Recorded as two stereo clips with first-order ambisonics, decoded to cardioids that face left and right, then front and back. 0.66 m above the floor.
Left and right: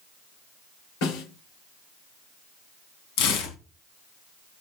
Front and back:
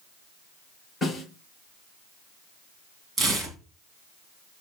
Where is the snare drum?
80° left, 6 m.